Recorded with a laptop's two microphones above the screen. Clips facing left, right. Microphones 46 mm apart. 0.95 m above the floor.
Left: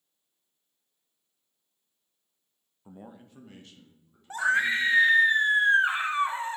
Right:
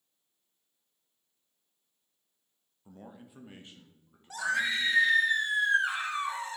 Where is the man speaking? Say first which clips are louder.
Left 2 dB; 25° left (ahead or behind), 0.5 m; by 5.1 s 40° right (ahead or behind), 2.5 m.